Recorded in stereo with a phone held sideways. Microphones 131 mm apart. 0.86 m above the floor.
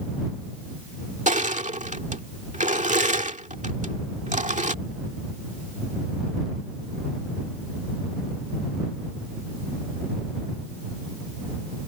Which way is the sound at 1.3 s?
75° right (ahead or behind).